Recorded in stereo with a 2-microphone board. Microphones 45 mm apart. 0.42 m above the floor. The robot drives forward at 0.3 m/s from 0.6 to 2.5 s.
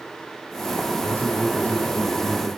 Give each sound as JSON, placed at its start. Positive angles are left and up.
{"t": 0.9, "sound": "a man speaking", "side_deg": 55, "distance_m": 3.0}